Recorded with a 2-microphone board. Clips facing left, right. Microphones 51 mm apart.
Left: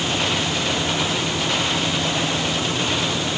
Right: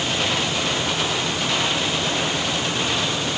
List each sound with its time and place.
Only background noise.